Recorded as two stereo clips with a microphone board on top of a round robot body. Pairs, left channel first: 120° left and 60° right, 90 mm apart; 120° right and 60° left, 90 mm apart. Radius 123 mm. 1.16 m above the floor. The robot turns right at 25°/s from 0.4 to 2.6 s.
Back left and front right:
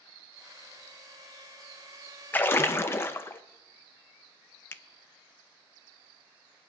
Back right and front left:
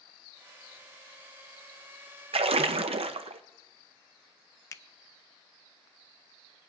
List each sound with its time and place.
2.3 s a splash: 50° left, 0.6 m; by 3.4 s 55° left, 0.6 m
4.7 s a finger snap: 175° right, 0.6 m